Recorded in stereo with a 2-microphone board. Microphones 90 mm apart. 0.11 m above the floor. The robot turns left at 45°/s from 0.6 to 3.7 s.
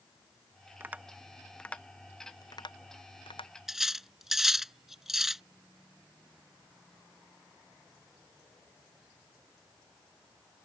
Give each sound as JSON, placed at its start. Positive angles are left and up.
{"t": 0.8, "sound": "tapping", "side_deg": -25}
{"t": 3.7, "sound": "cutlery clinking", "side_deg": -5}